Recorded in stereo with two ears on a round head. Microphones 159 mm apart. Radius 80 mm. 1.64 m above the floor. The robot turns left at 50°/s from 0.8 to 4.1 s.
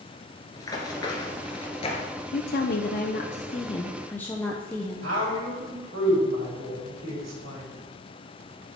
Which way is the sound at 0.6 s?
20° left (ahead or behind).